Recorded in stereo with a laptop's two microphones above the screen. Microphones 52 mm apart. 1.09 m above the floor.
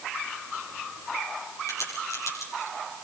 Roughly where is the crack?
Left.